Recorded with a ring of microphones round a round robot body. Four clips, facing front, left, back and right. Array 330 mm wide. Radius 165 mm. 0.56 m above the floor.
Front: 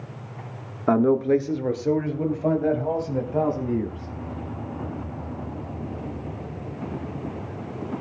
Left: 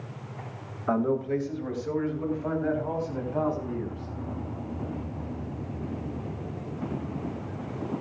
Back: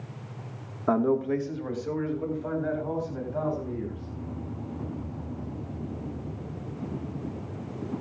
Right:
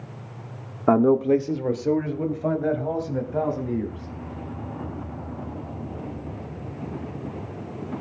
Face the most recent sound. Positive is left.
turn(degrees=-30)